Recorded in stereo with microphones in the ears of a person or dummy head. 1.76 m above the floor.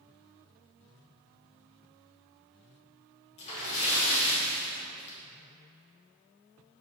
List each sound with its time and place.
3.4 s a splash: 30° left (ahead or behind), 1.8 m